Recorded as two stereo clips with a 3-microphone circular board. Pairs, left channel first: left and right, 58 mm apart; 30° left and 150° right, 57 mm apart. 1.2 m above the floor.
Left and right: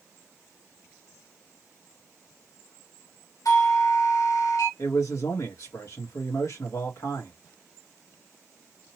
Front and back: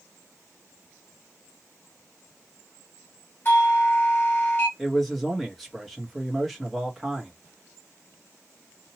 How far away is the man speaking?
About 1.2 m.